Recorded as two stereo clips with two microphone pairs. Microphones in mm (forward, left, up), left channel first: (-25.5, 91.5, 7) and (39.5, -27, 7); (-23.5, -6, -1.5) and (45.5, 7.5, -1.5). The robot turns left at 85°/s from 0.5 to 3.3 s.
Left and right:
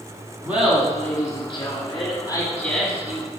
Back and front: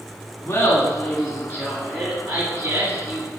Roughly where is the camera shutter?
No camera shutter in this recording.